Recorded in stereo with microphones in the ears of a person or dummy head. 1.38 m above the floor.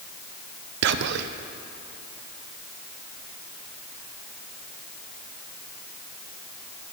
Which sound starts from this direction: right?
Whispering, at 0.8 s.